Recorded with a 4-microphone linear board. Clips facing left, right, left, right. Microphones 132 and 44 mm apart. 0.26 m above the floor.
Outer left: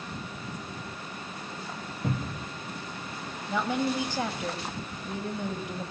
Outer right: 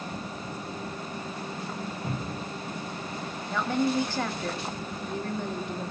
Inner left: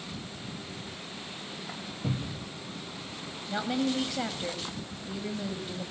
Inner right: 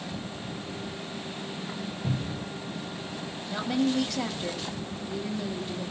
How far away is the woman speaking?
About 1.8 m.